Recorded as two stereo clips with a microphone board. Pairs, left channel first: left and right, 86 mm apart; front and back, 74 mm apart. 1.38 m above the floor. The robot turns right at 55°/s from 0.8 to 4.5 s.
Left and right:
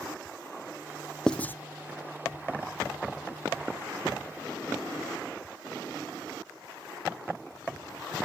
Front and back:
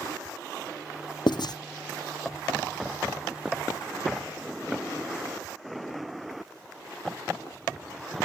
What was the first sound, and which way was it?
Writing, 10° left.